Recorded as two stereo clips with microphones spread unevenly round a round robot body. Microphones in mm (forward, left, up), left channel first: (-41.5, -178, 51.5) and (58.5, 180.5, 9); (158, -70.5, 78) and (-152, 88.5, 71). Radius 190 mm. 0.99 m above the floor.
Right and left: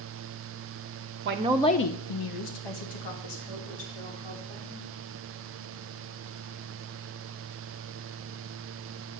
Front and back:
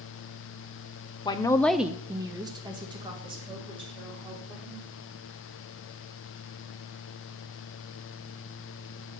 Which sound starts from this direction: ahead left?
A woman speaking, at 1.2 s.